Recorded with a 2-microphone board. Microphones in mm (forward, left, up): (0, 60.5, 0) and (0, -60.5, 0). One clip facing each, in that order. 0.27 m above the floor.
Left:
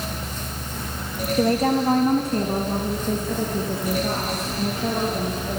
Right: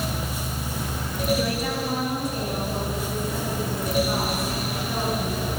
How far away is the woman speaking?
About 1.2 m.